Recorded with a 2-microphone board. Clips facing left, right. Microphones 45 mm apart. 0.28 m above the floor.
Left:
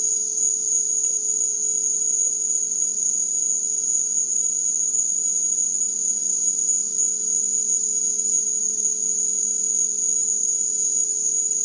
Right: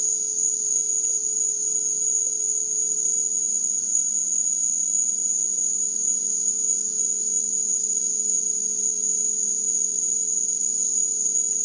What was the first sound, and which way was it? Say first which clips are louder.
An insect: left 1 dB; 65° left (ahead or behind).